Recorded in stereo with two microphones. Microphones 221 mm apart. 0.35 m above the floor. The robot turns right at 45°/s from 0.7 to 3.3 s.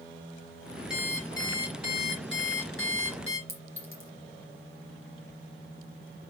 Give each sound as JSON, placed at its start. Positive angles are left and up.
{"t": 0.9, "sound": "an alarm clock", "azimuth_deg": -5, "distance_m": 3.5}
{"t": 3.5, "sound": "a clink", "side_deg": -70, "distance_m": 3.0}